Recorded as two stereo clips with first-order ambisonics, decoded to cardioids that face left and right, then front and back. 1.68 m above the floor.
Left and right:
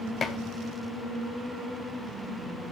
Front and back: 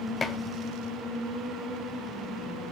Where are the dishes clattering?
45° left, 0.7 m.